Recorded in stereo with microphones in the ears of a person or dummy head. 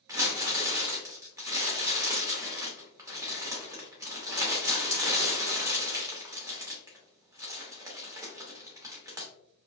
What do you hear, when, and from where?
0.1 s crumpling: 20° right (ahead or behind), 0.6 m